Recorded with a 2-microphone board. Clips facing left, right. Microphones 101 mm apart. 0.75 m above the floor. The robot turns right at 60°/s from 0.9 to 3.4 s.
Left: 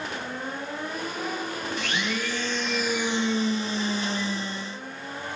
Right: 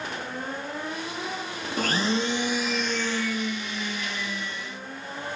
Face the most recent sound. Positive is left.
turn(degrees=40)